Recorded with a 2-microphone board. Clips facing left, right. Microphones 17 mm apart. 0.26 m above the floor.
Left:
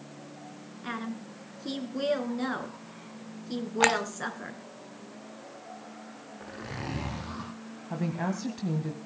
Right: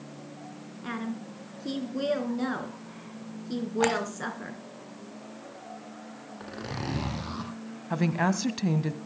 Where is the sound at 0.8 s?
10° left (ahead or behind), 3 m.